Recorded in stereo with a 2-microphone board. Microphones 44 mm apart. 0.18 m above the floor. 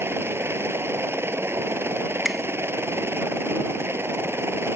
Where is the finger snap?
5° right (ahead or behind).